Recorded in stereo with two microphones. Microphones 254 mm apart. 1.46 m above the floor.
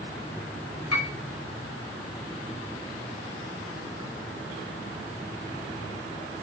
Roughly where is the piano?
Left.